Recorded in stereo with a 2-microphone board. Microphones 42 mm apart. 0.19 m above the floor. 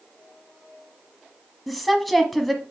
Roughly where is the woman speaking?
Centre.